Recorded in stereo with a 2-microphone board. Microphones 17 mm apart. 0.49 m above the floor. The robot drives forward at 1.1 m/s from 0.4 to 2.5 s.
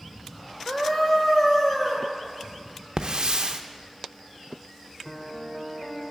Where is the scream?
30° left (ahead or behind), 1.1 m; by 2.1 s 15° left (ahead or behind), 2.5 m.